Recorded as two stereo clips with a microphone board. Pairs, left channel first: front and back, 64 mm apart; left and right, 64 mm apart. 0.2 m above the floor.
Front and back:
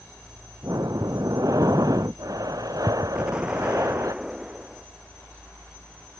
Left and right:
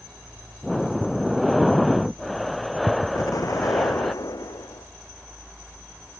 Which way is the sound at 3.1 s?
105° left.